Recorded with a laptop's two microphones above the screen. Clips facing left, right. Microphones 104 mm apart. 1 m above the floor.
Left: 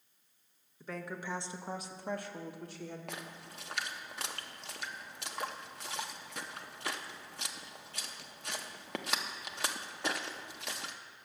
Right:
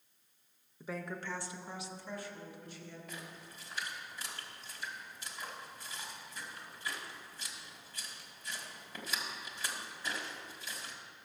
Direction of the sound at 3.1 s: 70° left (ahead or behind).